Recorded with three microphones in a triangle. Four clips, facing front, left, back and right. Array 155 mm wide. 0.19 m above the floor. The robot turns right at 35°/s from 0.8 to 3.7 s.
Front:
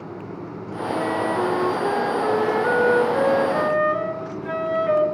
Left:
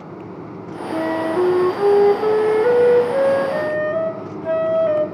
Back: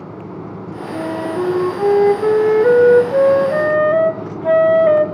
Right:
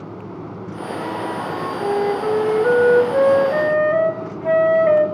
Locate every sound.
0.9 s a flute: 100° left, 0.9 m; by 5.0 s 165° right, 0.9 m